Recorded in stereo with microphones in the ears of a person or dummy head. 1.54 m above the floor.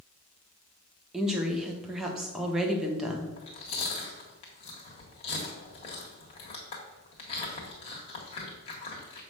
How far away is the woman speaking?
About 1.2 m.